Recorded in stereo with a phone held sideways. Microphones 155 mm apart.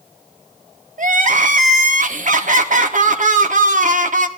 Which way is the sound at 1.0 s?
55° right (ahead or behind).